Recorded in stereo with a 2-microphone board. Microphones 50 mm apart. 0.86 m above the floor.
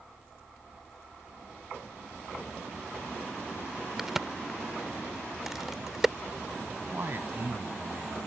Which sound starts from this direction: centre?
A crack, at 4.0 s.